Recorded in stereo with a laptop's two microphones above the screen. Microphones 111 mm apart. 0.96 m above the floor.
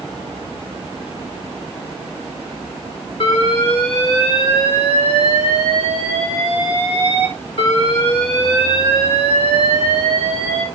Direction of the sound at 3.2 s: 60° left (ahead or behind).